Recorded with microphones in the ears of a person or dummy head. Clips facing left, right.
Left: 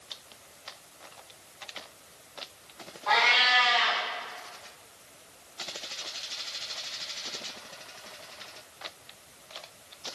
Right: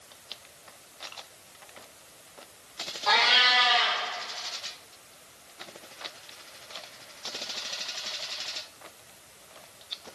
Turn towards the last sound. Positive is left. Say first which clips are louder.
# even
turn(degrees=-60)  # may be behind; listen again after turning